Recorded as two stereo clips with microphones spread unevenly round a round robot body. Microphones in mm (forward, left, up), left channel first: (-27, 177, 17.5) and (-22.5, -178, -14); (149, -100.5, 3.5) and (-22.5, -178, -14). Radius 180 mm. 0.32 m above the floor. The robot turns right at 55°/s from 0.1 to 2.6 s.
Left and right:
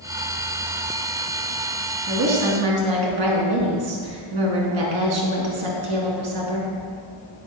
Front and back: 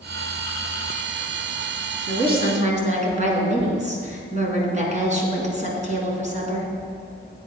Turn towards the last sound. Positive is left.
turn(degrees=-105)